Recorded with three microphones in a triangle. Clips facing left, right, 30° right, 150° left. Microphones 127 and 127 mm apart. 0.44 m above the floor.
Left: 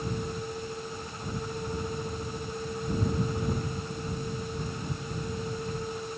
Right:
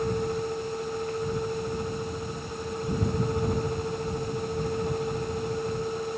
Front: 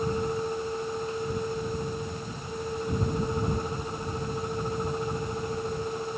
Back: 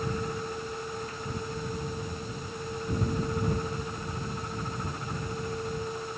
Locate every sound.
Only background noise.